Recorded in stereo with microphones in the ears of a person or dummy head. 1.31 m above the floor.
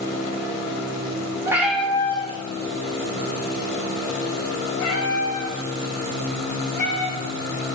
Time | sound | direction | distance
1.4 | a cat meowing | 15° right (ahead or behind) | 1.0 m